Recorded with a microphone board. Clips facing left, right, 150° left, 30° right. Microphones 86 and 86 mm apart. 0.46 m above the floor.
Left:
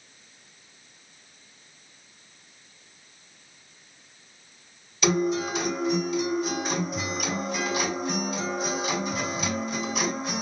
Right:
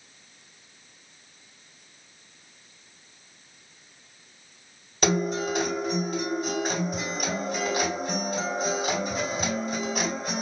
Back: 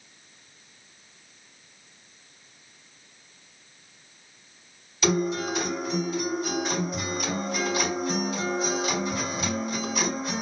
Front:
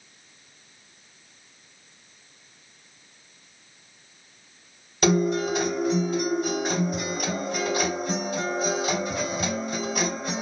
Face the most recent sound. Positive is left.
turn(degrees=-60)